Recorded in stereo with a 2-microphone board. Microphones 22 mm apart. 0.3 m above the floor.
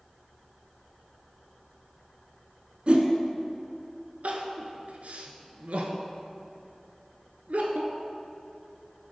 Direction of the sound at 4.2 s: 80° right.